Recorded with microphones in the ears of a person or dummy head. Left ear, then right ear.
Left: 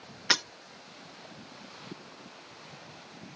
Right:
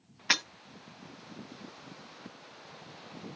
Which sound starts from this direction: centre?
Breaking glass, at 0.3 s.